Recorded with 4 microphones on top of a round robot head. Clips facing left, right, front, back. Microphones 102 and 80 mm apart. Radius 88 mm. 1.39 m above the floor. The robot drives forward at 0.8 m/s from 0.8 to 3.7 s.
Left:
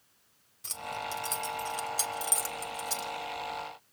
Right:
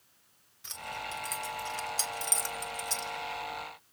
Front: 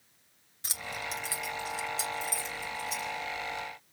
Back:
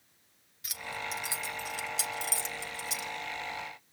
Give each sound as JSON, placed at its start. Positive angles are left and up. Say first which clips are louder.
{"t": 0.6, "sound": "keys jangling", "louder": "left 3 dB, even", "azimuth_deg": 35, "distance_m": 0.5}